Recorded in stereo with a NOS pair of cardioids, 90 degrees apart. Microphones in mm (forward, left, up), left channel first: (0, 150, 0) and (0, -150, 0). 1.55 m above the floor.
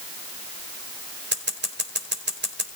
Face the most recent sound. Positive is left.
turn(degrees=-35)